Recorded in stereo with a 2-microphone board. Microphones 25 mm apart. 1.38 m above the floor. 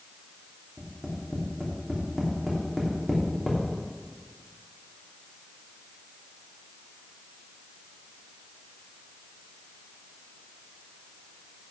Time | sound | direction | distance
0.8 | tapping | centre (ahead or behind) | 3 m